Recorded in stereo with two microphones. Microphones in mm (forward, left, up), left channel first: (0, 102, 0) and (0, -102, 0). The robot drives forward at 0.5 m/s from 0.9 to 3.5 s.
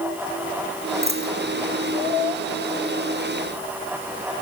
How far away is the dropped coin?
About 3 m.